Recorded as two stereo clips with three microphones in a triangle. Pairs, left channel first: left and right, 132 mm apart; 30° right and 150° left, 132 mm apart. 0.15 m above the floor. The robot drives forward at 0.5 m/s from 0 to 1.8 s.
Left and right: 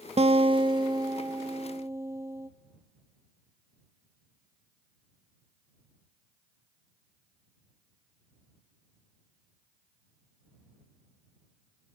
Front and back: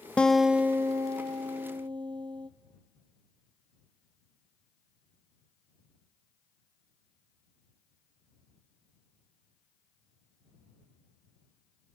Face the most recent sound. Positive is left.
turn(degrees=-155)